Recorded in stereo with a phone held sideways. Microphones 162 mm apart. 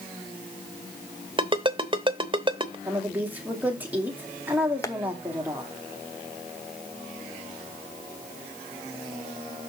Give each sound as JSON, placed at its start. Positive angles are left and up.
{"t": 1.4, "sound": "a ringtone", "side_deg": -30, "distance_m": 0.9}
{"t": 2.9, "sound": "a woman speaking", "side_deg": -10, "distance_m": 2.0}
{"t": 4.8, "sound": "tapping", "side_deg": 20, "distance_m": 0.7}